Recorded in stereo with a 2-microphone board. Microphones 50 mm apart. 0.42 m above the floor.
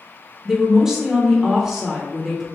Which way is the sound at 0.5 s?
10° right (ahead or behind).